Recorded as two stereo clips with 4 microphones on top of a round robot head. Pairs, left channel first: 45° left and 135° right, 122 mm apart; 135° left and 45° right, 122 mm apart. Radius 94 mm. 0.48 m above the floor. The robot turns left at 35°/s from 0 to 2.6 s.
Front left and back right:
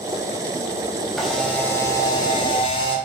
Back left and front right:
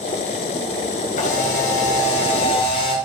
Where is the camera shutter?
140° left, 3.5 m; by 3.0 s 90° left, 3.5 m.